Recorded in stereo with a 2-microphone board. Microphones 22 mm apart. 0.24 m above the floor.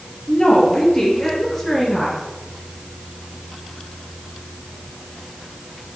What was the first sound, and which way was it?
A woman speaking, 30° left (ahead or behind).